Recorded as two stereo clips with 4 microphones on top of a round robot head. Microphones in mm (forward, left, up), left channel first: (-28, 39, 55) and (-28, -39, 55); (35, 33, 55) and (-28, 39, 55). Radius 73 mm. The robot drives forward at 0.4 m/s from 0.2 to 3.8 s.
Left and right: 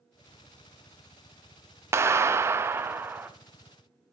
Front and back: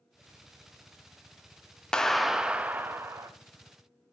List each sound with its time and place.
1.9 s a clap: 75° right, 0.5 m; by 3.3 s 150° right, 0.7 m